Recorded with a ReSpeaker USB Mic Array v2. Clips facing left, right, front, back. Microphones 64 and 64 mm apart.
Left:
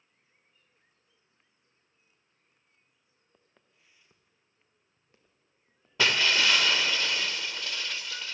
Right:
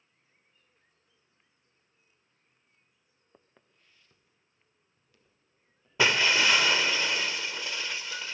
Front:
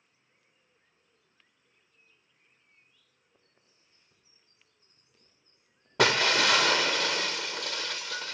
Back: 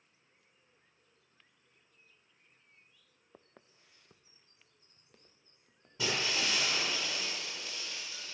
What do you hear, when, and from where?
3.3 s footsteps: 155° right, 0.8 m; by 5.9 s 145° left, 4 m
6.0 s breaking glass: 10° right, 1.2 m